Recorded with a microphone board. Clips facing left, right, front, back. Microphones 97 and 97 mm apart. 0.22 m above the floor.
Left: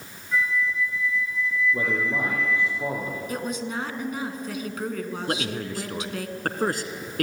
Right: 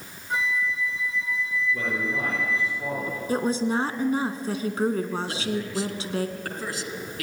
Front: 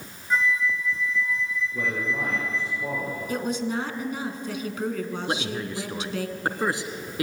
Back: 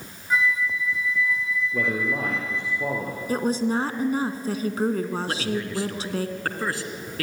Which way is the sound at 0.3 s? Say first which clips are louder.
Left 2 dB, even; 100° right.